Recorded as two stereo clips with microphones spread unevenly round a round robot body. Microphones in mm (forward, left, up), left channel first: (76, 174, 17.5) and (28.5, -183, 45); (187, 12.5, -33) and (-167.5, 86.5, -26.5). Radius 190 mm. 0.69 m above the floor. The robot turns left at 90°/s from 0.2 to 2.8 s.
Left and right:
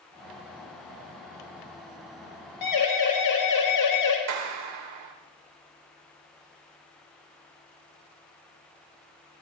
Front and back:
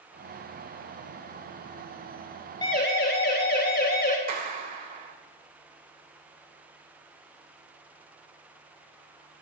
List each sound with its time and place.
2.6 s a siren: 65° left, 5 m; by 4.2 s 50° left, 4.5 m
4.3 s a clap: 120° right, 2 m